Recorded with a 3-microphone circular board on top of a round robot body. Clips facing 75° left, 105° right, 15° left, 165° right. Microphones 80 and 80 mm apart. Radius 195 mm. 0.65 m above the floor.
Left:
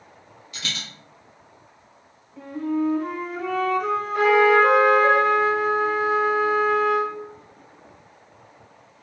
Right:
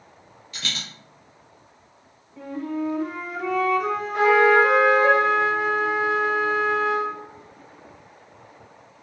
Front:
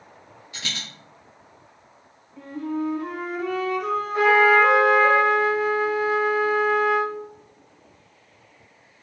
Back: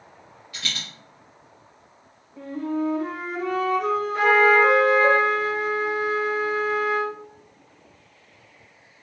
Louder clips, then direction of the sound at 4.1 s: Even, front 1 dB; 45° right.